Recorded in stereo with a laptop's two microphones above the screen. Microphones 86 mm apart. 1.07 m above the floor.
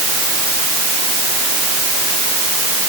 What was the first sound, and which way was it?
Only background noise.